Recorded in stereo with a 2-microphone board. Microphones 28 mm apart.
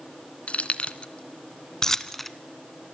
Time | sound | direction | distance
0.5 | keys jangling | 50° left (ahead or behind) | 1.4 m